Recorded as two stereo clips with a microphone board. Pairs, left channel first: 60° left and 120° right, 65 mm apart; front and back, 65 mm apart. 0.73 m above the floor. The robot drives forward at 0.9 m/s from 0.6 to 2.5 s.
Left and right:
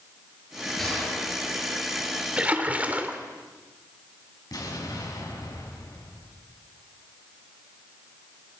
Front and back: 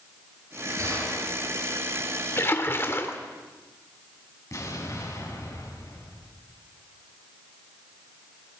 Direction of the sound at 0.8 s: 150° left.